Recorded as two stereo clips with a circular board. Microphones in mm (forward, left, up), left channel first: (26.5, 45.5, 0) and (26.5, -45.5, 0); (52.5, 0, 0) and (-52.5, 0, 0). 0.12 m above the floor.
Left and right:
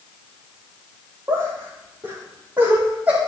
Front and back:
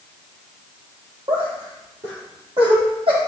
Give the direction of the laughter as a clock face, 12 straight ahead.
5 o'clock.